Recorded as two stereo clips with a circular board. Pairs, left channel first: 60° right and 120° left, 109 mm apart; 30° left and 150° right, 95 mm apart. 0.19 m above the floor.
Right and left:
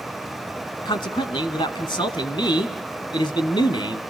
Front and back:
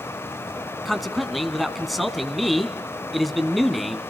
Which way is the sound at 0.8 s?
60° right.